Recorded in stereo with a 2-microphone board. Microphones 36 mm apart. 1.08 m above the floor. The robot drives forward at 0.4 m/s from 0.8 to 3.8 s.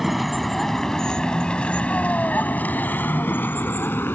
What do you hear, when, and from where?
0.0 s a vehicle: centre (ahead or behind); by 4.2 s 75° left (ahead or behind)